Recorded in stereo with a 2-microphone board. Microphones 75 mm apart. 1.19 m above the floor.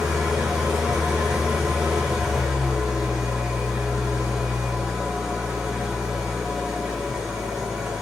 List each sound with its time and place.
0.0 s an engine running: 10° right (ahead or behind), 0.9 m